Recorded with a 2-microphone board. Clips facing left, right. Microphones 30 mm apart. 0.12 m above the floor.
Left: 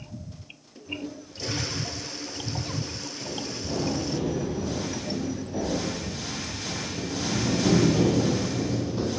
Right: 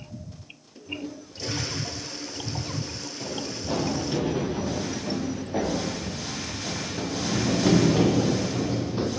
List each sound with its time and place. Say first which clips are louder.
0.8 s a toilet flushing: even; centre (ahead or behind), 1.7 m
3.2 s running footsteps: right 2 dB; 60° right (ahead or behind), 9.5 m; by 9.1 s 20° right (ahead or behind), 4.5 m